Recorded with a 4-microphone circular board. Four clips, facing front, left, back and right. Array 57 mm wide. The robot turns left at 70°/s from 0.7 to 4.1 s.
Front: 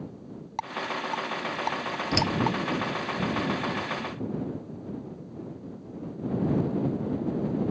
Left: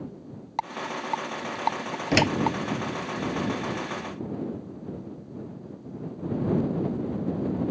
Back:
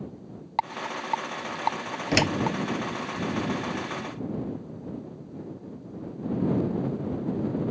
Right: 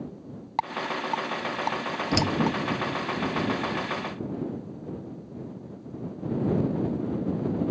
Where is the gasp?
No gasp in this recording.